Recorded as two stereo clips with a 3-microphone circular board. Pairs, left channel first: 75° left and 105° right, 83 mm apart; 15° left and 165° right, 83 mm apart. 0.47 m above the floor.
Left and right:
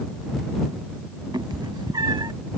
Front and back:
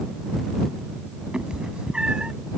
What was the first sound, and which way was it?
A cat meowing, 90° right.